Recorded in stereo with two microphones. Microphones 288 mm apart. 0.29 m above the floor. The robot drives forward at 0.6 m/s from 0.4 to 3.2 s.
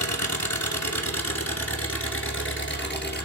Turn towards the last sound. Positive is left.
turn(degrees=35)  # may be behind; listen again after turning